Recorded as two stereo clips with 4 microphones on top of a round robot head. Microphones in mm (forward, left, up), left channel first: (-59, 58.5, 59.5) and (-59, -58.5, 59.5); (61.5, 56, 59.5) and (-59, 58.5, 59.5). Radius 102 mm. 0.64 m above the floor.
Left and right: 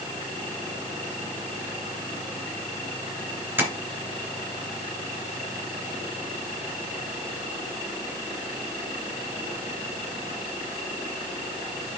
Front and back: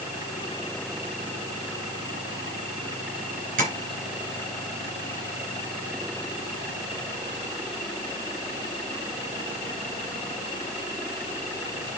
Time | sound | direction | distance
3.6 | tapping | 160° right | 3.5 m